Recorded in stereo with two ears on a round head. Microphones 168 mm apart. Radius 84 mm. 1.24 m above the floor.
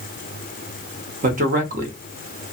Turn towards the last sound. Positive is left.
turn(degrees=-45)  # may be behind; listen again after turning